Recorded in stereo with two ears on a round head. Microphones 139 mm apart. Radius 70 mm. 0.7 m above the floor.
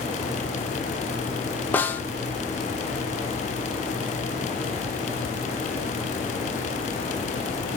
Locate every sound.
1.7 s a snare drum: 10° left (ahead or behind), 0.6 m